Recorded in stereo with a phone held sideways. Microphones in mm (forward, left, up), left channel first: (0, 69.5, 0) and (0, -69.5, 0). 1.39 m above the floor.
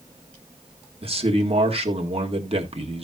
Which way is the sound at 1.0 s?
45° right (ahead or behind).